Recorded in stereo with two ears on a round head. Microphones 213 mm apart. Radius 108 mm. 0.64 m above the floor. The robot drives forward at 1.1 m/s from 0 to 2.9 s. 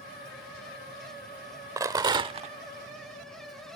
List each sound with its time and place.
1.8 s a rattle: 15° right (ahead or behind); by 2.5 s 30° right (ahead or behind)